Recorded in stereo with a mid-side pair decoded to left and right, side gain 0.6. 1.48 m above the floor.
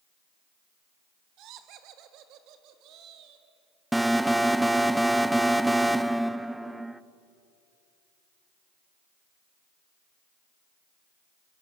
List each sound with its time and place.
1.4 s laughter: 65° right, 2.5 m
3.9 s an alarm: 5° right, 0.9 m